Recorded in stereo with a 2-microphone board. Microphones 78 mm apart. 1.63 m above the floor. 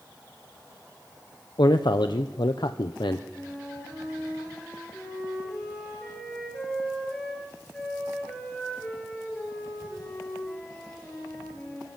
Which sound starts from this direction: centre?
A flute, at 3.3 s.